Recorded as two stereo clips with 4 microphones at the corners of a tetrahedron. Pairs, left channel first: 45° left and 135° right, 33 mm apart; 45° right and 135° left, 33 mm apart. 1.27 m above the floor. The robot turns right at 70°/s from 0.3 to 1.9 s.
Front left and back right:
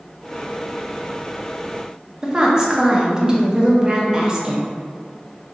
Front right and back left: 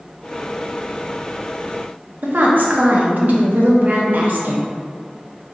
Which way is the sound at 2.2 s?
155° left.